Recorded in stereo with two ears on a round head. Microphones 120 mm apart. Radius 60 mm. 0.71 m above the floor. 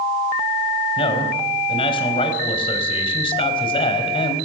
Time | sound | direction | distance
1.0 | a man speaking | 40° left (ahead or behind) | 4.5 m